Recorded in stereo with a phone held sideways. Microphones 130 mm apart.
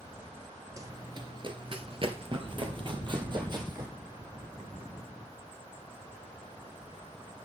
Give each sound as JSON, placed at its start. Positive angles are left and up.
{"t": 0.8, "sound": "running footsteps", "side_deg": -25, "distance_m": 1.1}